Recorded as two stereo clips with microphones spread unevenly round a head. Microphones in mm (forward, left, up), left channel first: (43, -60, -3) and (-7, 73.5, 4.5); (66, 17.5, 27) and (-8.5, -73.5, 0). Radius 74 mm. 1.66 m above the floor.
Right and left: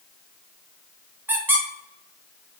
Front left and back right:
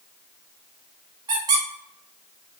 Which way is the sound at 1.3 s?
170° left.